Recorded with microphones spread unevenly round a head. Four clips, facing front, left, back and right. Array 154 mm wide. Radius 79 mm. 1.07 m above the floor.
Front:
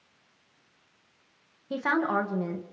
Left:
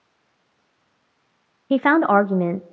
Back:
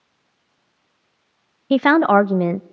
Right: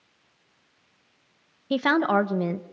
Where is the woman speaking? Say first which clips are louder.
Left 6 dB, back 13 dB; 160° left, 0.9 m.